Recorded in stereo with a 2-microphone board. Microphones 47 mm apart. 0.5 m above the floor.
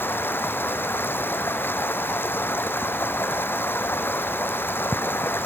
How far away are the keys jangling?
No keys jangling in this recording.